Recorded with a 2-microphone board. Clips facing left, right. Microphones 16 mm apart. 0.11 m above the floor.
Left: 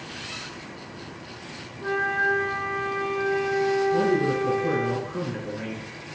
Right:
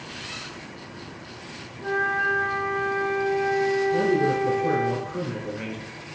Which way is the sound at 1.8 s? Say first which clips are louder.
Even; 15° left (ahead or behind).